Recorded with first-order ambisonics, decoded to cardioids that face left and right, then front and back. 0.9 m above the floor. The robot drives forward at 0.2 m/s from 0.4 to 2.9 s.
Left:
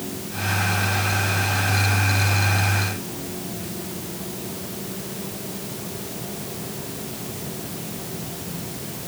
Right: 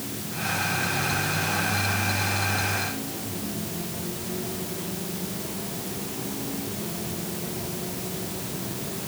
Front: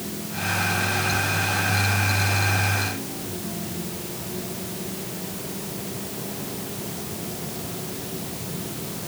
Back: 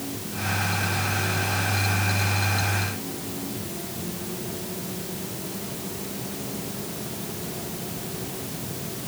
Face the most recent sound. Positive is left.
No sound to turn to.